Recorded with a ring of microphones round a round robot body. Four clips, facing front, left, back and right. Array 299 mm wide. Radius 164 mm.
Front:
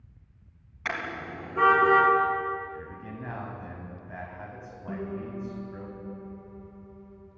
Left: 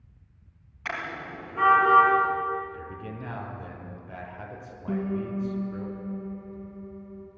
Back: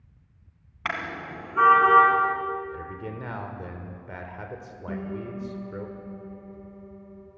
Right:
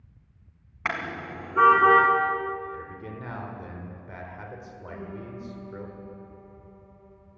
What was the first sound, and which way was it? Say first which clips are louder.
A car horn: right 3 dB, back 2 dB; 120° right.